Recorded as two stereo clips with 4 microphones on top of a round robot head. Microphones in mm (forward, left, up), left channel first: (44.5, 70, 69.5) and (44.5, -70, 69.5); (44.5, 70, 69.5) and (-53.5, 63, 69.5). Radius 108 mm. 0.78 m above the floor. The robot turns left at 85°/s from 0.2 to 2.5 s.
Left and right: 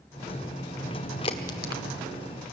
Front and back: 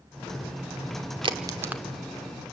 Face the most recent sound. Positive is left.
turn(degrees=45)